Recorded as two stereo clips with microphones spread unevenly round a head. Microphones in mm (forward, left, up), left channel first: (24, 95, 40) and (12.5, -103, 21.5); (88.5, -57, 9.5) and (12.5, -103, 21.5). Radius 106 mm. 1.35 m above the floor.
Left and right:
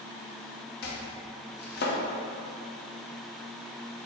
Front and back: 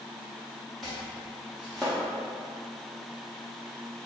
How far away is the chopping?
About 0.6 m.